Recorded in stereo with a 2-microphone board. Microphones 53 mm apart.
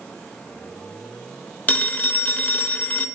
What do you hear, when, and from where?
1.7 s a phone ringing: 30° left (ahead or behind), 0.6 m